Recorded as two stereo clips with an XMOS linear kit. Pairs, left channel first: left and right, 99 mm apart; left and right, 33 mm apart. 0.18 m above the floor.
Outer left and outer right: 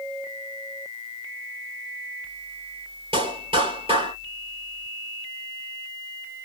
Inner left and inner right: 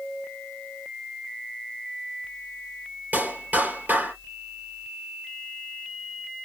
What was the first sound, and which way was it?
A clap, 70° right (ahead or behind).